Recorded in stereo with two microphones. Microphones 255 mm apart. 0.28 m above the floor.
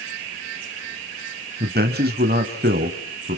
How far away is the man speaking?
About 1.5 m.